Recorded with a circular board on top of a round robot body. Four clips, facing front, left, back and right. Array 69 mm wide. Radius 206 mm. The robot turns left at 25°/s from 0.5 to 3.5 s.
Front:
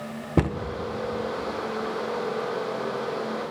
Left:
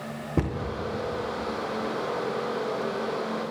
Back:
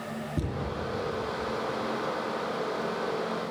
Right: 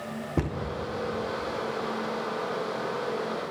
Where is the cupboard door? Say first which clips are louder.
Left 2 dB, front 12 dB; 5° left, 0.6 m.